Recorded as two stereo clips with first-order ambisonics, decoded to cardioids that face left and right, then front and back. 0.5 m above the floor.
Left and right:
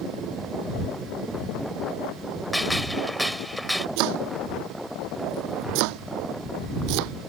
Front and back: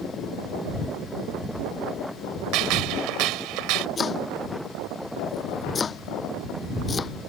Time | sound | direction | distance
2.5 | a gunshot | straight behind | ?
4.0 | chopping | 70° right | ?